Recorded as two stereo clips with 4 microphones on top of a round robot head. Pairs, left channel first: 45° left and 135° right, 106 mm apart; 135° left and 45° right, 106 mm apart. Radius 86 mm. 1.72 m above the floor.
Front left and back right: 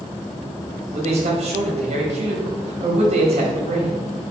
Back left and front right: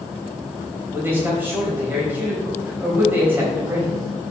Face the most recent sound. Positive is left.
turn(degrees=-120)